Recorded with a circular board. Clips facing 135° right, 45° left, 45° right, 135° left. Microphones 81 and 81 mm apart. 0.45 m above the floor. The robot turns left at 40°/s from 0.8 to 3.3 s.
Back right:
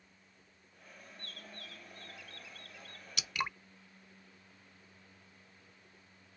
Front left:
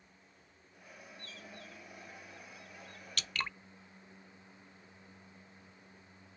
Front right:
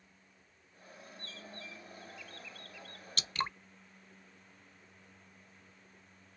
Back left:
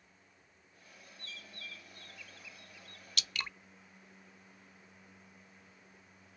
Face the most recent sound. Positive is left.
turn(degrees=-65)